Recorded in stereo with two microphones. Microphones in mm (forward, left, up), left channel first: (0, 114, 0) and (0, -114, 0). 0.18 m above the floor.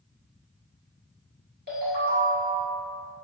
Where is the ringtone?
45° right (ahead or behind), 1.8 m.